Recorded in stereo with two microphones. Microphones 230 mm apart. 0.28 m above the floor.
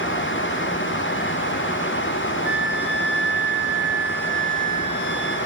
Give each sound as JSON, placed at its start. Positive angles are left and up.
{"t": 2.4, "sound": "a flute", "side_deg": 50, "distance_m": 1.7}